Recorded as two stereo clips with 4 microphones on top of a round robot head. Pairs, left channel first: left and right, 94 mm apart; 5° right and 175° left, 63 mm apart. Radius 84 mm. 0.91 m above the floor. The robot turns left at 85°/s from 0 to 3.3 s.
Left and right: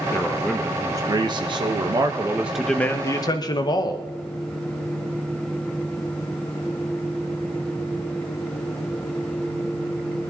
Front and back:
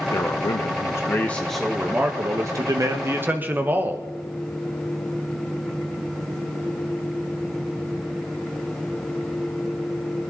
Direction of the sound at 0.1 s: 35° left.